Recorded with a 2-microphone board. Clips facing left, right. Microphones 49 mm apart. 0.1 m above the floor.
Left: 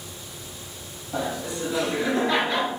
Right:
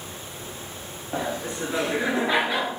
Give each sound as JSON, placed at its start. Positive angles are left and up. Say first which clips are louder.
{"t": 1.1, "sound": "laughter", "louder": "even", "side_deg": -45, "distance_m": 1.6}